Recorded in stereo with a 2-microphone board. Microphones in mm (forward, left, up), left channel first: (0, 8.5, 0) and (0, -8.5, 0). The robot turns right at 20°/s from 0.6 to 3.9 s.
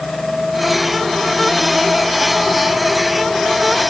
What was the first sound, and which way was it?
Only background noise.